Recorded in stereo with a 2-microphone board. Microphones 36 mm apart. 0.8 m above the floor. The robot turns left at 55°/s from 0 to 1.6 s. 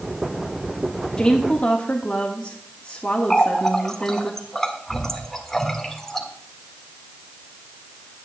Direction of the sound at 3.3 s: 10° left (ahead or behind).